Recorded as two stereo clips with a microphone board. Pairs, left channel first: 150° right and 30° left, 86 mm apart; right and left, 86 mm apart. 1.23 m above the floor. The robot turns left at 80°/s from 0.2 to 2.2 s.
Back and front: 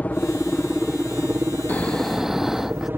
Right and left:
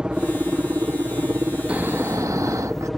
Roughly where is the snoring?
Behind left.